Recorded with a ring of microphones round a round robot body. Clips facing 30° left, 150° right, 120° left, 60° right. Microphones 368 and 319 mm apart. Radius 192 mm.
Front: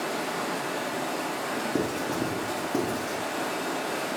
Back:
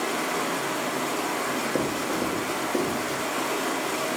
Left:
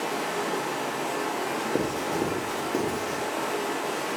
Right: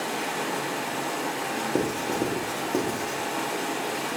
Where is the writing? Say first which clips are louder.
Even, right 2 dB; 5° right, 0.9 m.